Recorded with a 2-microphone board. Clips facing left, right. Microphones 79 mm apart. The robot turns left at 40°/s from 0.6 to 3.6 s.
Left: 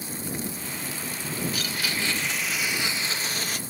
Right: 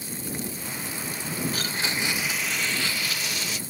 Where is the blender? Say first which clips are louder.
Right 1 dB; 145° right; by 3.6 s 135° left.